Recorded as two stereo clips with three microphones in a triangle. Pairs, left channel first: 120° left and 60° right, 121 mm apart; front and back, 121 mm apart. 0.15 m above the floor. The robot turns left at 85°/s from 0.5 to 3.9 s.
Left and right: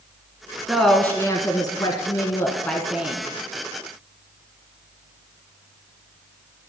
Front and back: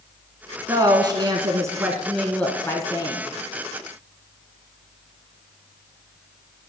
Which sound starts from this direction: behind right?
A woman speaking, at 0.7 s.